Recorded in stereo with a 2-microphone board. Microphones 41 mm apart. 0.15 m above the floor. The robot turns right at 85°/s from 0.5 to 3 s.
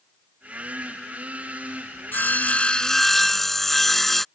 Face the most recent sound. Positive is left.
turn(degrees=175)